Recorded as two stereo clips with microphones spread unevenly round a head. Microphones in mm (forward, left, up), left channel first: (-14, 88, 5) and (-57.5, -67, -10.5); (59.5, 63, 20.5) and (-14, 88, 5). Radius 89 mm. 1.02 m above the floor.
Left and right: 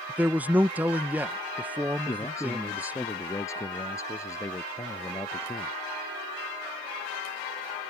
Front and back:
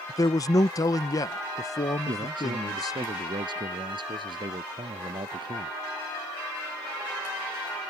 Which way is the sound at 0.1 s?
40° right.